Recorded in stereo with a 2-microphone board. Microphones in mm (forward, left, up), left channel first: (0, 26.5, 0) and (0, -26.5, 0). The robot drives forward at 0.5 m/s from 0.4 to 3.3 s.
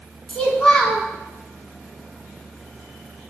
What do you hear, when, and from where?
0.3 s a child speaking: 20° left (ahead or behind), 0.6 m